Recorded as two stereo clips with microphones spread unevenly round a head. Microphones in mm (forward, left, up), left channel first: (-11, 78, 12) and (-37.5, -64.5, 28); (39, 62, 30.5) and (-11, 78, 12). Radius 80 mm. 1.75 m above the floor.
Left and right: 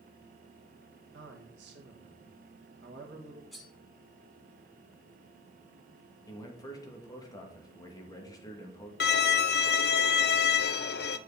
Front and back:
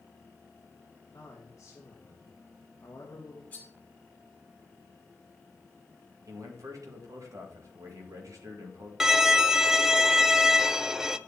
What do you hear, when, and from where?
1.1 s a man speaking: 80° right, 2.0 m
3.5 s cutlery clinking: 15° right, 1.2 m
6.3 s a man speaking: 145° left, 2 m
9.0 s a violin: 70° left, 0.5 m